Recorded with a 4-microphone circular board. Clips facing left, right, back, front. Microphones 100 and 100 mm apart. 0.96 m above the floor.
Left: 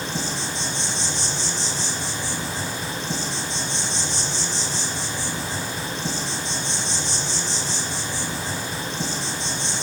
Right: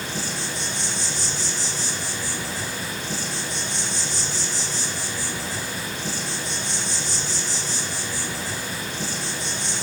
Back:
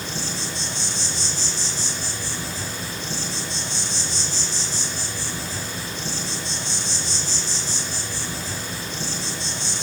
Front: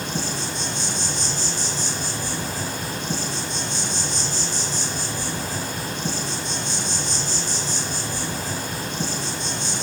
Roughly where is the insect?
Ahead left.